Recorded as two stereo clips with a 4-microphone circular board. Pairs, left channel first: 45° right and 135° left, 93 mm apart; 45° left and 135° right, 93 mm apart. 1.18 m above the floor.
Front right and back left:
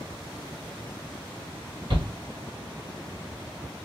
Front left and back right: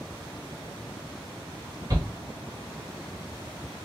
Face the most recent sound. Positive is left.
turn(degrees=175)